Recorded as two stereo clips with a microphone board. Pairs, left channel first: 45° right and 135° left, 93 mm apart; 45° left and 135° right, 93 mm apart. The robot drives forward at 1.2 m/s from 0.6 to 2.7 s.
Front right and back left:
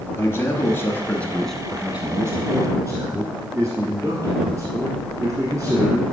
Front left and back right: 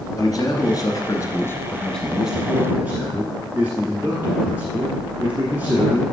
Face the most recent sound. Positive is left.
turn(degrees=165)